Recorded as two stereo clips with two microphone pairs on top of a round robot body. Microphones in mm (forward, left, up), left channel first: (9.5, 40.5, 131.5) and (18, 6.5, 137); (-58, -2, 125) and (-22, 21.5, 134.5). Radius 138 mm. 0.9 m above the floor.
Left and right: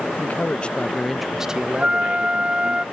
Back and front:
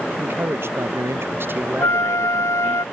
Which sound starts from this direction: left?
A man speaking, at 0.2 s.